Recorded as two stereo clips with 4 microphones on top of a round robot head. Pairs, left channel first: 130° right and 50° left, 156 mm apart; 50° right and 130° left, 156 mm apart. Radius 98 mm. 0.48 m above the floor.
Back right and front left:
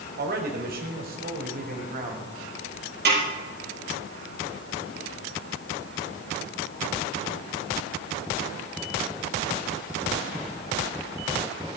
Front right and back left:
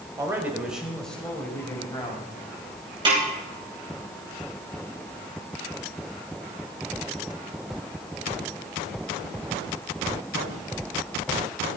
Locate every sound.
0.2 s a man speaking: 60° left, 3.5 m; by 2.3 s 15° left, 4.5 m
3.0 s a snare drum: 70° left, 6.5 m